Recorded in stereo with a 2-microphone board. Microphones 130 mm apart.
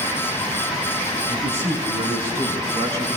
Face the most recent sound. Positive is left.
turn(degrees=-40)  # may be behind; listen again after turning